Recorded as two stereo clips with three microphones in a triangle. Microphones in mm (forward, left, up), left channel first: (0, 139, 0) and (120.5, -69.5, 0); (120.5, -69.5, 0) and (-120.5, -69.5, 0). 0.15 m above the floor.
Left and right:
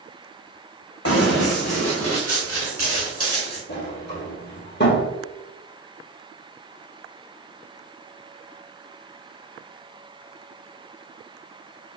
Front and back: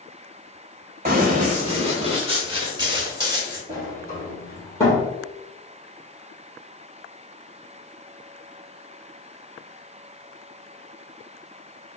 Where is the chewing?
No chewing in this recording.